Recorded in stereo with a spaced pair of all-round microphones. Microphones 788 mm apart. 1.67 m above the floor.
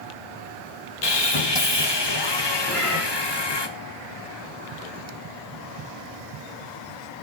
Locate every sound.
1.0 s sawing: 30° left (ahead or behind), 1.2 m
2.7 s a cat meowing: 20° right (ahead or behind), 3 m